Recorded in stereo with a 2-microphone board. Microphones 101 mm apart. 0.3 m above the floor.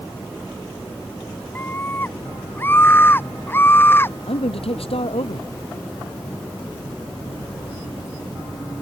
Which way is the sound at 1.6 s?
20° left (ahead or behind).